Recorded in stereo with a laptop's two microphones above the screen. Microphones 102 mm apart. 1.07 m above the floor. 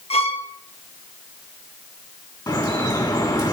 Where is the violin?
80° left, 0.8 m.